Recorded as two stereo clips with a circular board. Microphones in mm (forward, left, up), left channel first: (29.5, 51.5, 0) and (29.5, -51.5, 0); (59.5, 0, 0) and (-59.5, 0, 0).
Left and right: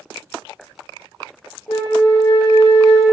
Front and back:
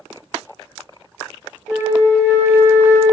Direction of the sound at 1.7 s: 115° left.